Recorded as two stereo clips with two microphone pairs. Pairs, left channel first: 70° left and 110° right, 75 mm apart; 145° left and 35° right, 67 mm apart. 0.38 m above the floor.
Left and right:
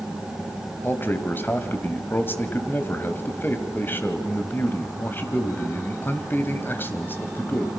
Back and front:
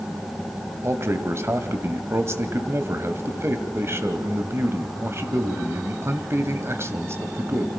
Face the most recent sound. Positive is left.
turn(degrees=10)